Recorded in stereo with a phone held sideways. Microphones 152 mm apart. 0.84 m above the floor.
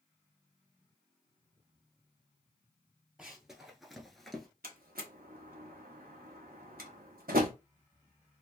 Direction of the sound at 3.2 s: 5° right (ahead or behind).